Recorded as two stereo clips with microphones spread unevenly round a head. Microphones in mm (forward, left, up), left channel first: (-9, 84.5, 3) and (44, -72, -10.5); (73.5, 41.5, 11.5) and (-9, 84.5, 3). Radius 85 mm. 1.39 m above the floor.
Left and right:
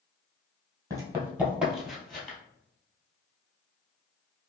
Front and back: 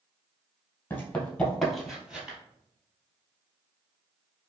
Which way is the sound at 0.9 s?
15° right.